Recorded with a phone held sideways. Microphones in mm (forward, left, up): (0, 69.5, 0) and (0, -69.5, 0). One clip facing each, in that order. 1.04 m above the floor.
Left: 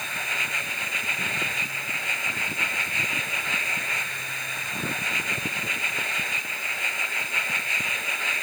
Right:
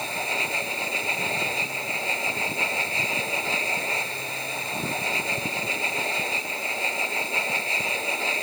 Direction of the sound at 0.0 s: 30° right (ahead or behind).